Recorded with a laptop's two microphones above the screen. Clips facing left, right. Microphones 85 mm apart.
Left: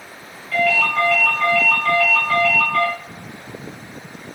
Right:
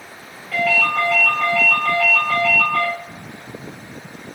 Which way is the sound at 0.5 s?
10° right (ahead or behind).